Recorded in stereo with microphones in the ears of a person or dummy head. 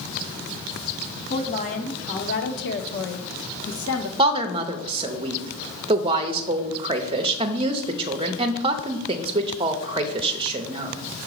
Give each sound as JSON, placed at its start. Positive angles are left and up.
{"t": 1.3, "sound": "a woman speaking", "side_deg": 40, "distance_m": 1.6}
{"t": 4.2, "sound": "a woman speaking", "side_deg": -25, "distance_m": 0.7}